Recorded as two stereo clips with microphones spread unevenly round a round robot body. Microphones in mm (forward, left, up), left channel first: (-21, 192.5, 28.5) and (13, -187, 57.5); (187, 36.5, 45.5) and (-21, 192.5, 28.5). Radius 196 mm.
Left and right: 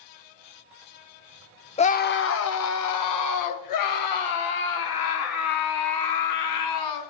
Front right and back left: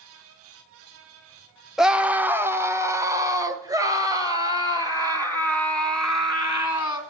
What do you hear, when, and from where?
1.8 s a scream: 65° left, 0.9 m; by 7.0 s 70° left, 4.5 m